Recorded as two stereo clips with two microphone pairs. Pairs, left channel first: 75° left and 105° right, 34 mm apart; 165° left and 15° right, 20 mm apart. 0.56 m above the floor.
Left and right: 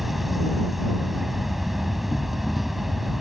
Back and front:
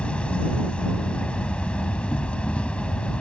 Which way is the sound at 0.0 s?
170° left.